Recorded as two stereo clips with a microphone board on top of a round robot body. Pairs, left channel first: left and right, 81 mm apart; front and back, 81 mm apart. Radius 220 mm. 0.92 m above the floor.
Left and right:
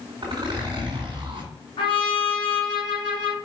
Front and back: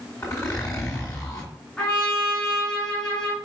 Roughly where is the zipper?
Ahead right.